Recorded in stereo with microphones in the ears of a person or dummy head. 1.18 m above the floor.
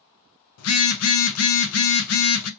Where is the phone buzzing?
90° left, 0.5 m.